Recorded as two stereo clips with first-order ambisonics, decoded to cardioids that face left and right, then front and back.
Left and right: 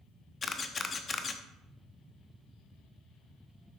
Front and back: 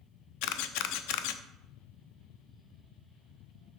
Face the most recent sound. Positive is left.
turn(degrees=20)